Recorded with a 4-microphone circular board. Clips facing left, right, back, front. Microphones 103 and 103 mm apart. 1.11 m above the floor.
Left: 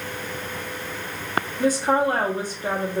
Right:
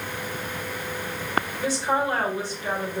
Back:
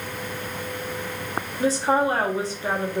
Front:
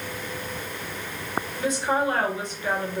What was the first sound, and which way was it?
A woman speaking, 130° left.